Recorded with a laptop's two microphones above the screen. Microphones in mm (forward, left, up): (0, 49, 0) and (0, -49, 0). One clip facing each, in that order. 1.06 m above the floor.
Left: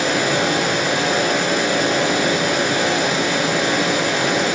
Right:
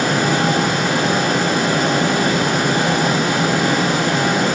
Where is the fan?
55° right (ahead or behind), 3.5 m.